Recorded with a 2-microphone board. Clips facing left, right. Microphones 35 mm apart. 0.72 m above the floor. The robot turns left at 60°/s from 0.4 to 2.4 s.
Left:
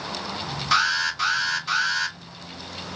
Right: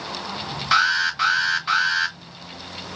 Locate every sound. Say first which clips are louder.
0.7 s an alarm: right 3 dB; 30° right, 1.6 m; by 2.2 s 120° right, 1.6 m